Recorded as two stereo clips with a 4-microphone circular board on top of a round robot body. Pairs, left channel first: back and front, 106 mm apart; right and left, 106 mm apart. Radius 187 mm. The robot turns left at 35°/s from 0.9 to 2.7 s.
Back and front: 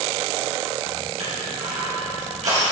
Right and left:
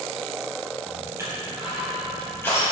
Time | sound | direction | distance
1.2 | crushing | 25° left | 4 m